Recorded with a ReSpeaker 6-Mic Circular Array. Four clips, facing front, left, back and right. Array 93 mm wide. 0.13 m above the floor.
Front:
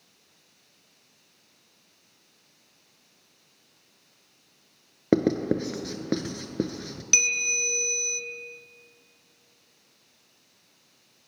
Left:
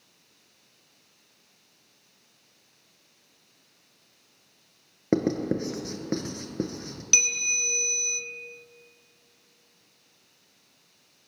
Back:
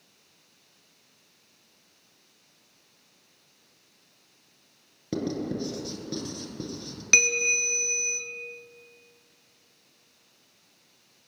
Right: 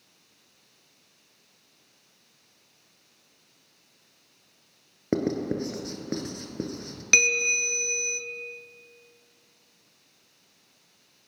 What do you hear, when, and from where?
5.1 s writing: 5° left, 0.8 m
7.1 s a bell: 125° right, 0.5 m